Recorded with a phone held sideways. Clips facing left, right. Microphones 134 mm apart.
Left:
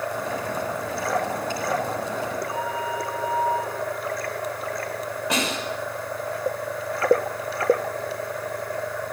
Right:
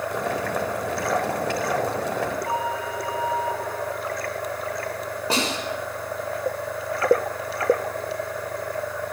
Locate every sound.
0.1 s boiling: 80° right, 4 m
2.5 s a flute: 80° right, 8 m
5.3 s a snare drum: 35° right (ahead or behind), 6.5 m